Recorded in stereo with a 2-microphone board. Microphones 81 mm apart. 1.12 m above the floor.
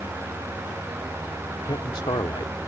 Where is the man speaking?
85° left.